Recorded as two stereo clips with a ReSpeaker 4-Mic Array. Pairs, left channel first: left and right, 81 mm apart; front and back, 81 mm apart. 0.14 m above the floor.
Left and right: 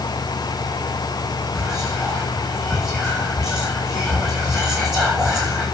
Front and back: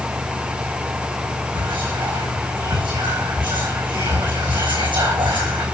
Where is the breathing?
No breathing in this recording.